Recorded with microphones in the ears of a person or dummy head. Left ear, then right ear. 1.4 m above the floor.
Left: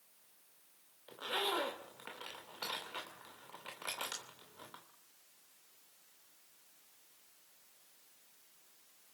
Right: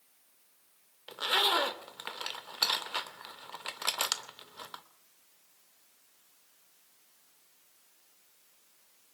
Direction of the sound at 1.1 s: 45° right (ahead or behind).